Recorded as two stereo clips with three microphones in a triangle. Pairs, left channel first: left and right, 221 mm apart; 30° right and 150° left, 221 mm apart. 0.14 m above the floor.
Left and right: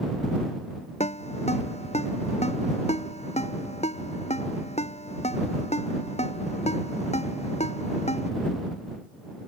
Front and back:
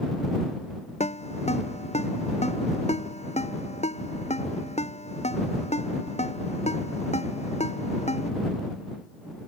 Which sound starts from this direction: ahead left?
A ringtone, at 1.0 s.